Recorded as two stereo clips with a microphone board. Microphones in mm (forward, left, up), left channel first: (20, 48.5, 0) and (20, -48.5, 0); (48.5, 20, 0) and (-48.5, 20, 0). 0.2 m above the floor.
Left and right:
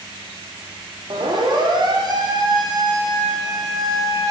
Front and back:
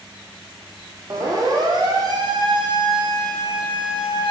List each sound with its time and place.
1.1 s a siren: 130° right, 8 m; by 4.3 s 150° right, 7.5 m